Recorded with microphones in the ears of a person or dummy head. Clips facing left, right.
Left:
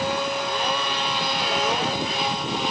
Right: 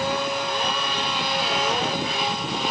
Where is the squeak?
No squeak in this recording.